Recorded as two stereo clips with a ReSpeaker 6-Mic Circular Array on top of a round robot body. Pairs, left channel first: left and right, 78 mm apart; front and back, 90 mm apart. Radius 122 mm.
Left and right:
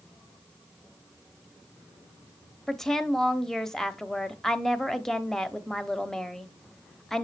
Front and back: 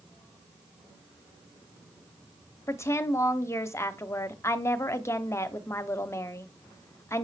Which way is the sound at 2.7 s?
10° left.